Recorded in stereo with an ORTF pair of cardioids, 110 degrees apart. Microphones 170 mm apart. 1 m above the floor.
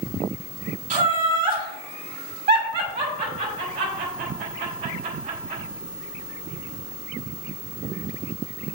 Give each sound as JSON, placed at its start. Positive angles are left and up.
{"t": 0.9, "sound": "laughter", "azimuth_deg": -50, "distance_m": 1.6}